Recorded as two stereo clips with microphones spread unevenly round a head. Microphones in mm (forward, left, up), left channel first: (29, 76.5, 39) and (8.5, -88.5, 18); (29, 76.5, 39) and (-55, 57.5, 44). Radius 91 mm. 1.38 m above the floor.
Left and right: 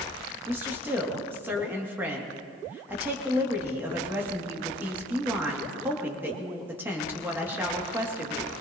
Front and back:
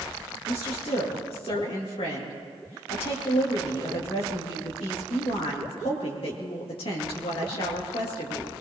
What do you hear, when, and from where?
0.5 s a woman speaking: 15° right, 2.5 m